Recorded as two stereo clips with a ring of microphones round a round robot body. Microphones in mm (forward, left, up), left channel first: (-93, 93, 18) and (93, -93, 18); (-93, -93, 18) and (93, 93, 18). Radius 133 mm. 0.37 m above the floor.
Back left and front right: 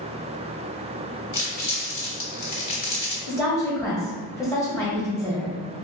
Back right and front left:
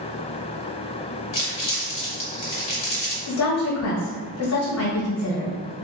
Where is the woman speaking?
145° right, 1.4 m.